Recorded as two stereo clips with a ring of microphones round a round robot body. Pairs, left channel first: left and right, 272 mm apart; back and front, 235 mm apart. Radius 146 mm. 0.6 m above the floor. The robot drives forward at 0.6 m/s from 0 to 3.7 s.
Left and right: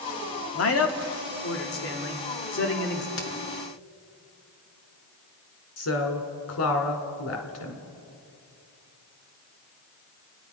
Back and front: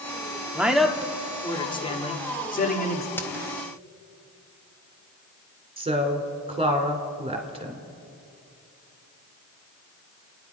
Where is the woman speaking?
65° left, 2.5 m.